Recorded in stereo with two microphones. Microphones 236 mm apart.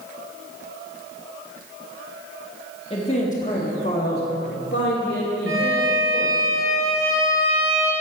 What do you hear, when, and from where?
2.9 s a man speaking: 25° left (ahead or behind), 1.3 m; by 6.4 s 55° left (ahead or behind), 2.5 m
5.5 s a violin: 85° right, 3 m